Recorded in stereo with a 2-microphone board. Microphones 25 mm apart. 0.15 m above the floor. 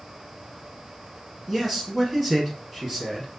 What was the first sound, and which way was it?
A man speaking, 5° right (ahead or behind).